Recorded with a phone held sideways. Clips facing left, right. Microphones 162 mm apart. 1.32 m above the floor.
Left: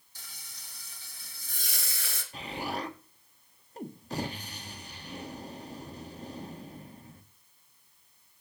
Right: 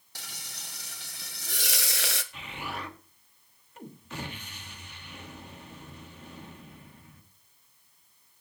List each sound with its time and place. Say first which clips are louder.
0.1 s frying: right 8 dB; 75° right (ahead or behind), 1.2 m
2.3 s an explosion: left 4 dB; 35° left (ahead or behind), 1.5 m